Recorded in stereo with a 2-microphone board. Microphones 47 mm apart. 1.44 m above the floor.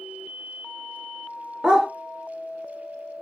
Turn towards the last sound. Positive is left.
turn(degrees=-15)  # may be behind; listen again after turning